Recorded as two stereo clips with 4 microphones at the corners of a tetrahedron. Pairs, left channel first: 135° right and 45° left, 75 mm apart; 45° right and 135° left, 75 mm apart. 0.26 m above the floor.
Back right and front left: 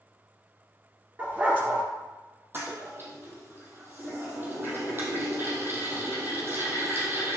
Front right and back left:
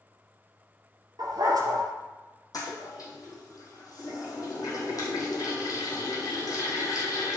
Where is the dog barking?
110° left, 2.5 m.